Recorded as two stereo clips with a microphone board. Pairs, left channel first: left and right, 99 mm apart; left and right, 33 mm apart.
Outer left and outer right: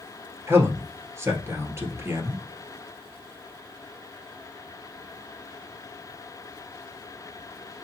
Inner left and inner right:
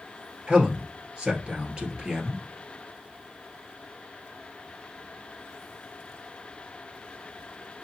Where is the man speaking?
25° right (ahead or behind), 1.9 m.